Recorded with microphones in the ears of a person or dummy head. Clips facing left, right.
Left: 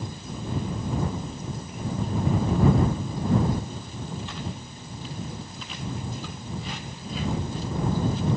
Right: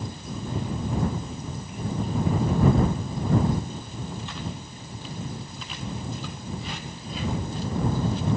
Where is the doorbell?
No doorbell in this recording.